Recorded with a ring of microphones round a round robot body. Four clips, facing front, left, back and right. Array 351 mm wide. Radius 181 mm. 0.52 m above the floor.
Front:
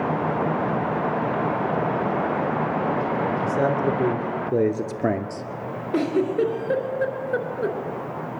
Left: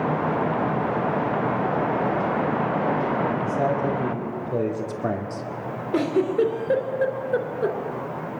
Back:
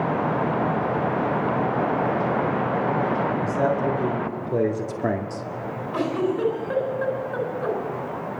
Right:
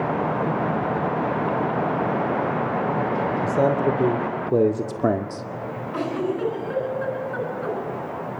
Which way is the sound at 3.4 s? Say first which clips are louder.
Right 3 dB, front 1 dB; 65° right.